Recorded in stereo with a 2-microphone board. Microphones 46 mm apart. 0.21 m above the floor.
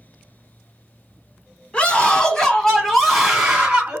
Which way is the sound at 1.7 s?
30° left (ahead or behind).